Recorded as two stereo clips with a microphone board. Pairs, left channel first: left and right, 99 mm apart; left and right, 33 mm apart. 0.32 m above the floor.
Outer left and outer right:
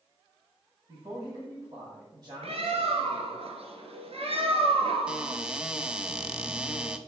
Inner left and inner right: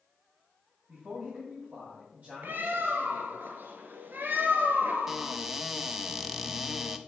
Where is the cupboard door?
10° right (ahead or behind), 0.7 m.